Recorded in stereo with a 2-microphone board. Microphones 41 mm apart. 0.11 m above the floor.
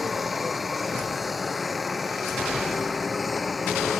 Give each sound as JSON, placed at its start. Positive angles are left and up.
{"t": 0.0, "sound": "a helicopter", "side_deg": 0}